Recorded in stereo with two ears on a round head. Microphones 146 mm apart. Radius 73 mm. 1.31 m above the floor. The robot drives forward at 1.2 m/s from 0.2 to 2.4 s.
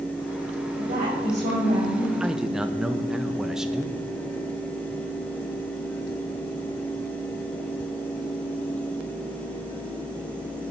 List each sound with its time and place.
0.8 s a woman speaking: 55° right (ahead or behind), 4.5 m; by 2.1 s 40° right (ahead or behind), 5.5 m
2.2 s a man speaking: 5° right (ahead or behind), 0.6 m